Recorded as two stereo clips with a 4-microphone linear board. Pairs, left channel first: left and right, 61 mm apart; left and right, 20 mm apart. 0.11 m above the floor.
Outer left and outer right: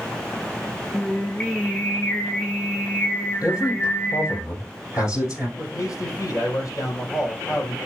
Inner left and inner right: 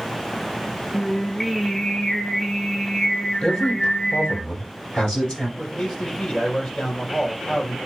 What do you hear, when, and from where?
0.9 s singing: 30° left (ahead or behind), 1.6 m
3.4 s a man speaking: 65° left (ahead or behind), 3 m
5.6 s a man speaking: 65° left (ahead or behind), 3.5 m